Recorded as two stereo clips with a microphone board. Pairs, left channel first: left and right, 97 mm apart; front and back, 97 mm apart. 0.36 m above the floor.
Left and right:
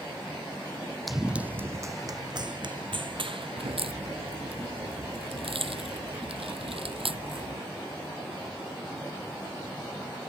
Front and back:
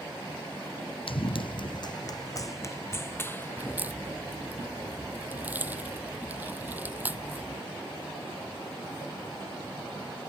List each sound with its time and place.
1.1 s running footsteps: straight ahead; by 4.1 s 70° right
3.6 s a crack: 105° right